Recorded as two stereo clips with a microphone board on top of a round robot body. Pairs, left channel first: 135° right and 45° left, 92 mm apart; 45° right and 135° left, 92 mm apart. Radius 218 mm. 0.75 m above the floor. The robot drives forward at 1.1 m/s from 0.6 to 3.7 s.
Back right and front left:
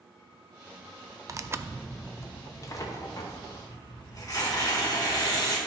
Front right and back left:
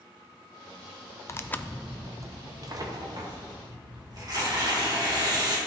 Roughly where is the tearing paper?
Ahead.